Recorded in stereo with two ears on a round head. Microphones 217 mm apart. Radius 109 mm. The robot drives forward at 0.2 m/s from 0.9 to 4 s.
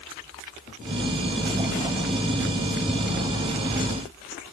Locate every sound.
Only background noise.